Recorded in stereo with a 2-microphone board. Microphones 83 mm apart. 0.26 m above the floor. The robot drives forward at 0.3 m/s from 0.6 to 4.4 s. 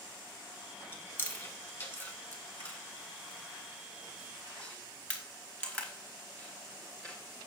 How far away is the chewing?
About 1.5 m.